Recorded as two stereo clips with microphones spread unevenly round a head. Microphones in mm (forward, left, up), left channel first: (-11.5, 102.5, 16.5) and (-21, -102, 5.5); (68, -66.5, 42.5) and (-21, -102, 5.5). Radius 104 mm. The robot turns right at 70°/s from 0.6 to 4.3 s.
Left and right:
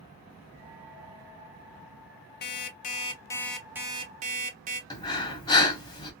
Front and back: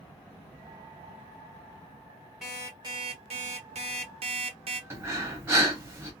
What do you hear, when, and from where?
2.4 s an alarm clock: 95° left, 0.5 m; by 4.8 s 135° right, 0.5 m
4.9 s breathing: 155° left, 0.7 m